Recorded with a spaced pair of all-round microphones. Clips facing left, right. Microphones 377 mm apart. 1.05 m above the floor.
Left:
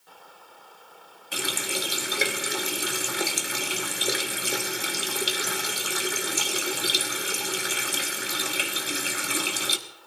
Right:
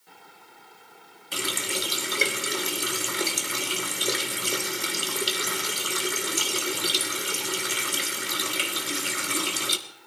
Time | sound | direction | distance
1.3 | a running tap | 5° right (ahead or behind) | 1.3 m